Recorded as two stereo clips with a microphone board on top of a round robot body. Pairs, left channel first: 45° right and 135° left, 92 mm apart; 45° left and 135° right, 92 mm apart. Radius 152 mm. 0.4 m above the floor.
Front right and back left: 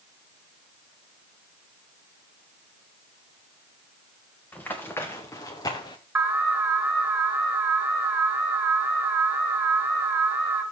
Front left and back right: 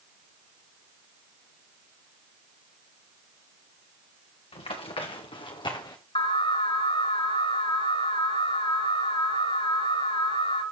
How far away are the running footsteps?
About 3 m.